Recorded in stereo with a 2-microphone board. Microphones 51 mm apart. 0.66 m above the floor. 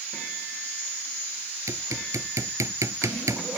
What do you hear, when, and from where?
1.7 s hammering: 80° right